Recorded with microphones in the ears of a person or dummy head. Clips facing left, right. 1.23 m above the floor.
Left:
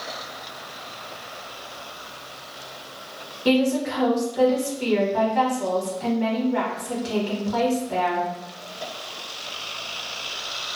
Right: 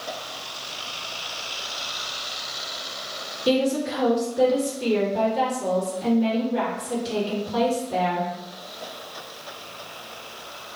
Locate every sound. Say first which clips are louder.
3.5 s a woman speaking: left 1 dB; 75° left (ahead or behind), 1.2 m